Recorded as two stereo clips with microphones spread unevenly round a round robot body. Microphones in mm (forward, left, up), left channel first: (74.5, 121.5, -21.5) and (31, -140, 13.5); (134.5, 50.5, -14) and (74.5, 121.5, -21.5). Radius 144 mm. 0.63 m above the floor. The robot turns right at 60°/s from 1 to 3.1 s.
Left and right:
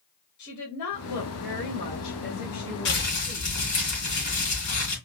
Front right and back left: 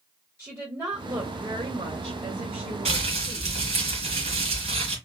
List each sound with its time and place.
0.4 s a woman speaking: 60° left, 1.7 m; by 3.5 s 170° right, 1.7 m
2.9 s crumpling: 130° left, 2 m; by 5.0 s 145° left, 2 m